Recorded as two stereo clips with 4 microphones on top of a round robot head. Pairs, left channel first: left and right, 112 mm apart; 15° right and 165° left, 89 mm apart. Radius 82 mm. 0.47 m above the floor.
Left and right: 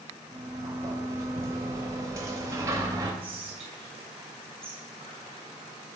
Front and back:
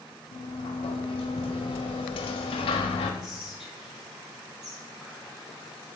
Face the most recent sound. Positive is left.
turn(degrees=-105)